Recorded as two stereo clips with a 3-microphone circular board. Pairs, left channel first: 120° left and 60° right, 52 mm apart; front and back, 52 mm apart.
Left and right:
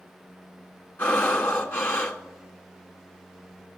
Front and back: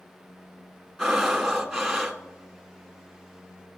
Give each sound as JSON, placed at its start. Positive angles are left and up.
{"t": 1.0, "sound": "breathing", "azimuth_deg": 90, "distance_m": 1.3}